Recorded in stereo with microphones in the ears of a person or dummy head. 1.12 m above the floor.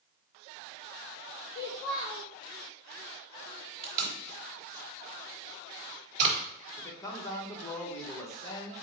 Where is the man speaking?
20° left (ahead or behind), 1.0 m.